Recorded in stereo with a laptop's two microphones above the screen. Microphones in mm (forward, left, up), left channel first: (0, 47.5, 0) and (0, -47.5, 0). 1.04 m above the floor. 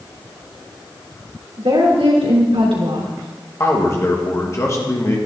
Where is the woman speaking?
80° right, 3 m.